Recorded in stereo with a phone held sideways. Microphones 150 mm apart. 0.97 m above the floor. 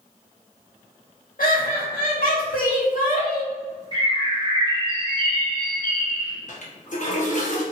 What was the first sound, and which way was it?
Laughter, 70° left (ahead or behind).